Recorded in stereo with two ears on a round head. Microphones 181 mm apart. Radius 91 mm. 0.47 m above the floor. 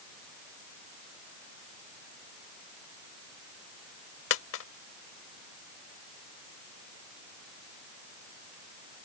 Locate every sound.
4.3 s a dropped coin: 70° left (ahead or behind)